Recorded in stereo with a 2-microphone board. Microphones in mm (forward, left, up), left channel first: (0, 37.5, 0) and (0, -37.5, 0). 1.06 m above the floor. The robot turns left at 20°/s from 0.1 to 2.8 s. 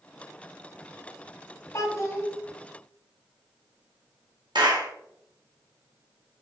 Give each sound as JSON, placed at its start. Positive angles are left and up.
{"t": 1.7, "sound": "a child speaking", "side_deg": 40, "distance_m": 0.8}
{"t": 4.5, "sound": "a clap", "side_deg": -80, "distance_m": 1.0}